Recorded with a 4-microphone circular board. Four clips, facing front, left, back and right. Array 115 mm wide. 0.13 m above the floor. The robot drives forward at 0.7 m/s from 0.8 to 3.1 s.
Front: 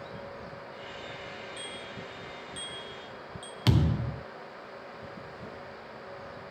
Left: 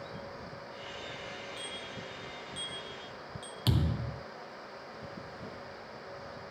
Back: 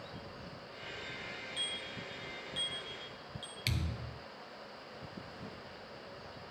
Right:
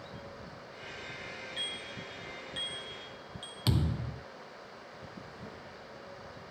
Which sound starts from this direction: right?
A bicycle bell, at 1.6 s.